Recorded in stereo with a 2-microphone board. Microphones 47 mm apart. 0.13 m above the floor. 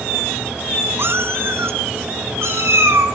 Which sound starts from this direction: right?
A cat meowing, at 1.0 s.